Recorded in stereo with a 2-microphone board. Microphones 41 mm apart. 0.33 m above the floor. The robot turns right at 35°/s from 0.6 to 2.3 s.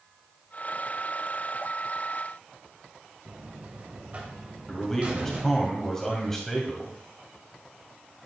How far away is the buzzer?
About 1.4 m.